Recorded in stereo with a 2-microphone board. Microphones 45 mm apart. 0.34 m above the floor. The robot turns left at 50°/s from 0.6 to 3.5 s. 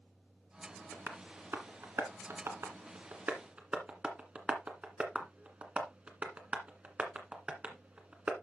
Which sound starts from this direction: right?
Tapping, at 0.9 s.